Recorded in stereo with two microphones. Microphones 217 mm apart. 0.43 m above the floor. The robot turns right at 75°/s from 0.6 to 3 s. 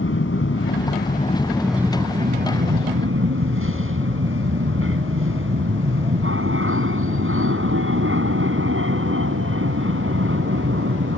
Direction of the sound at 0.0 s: 95° left.